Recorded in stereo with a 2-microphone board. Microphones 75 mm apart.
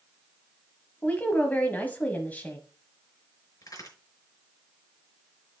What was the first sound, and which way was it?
A woman speaking, 20° left (ahead or behind).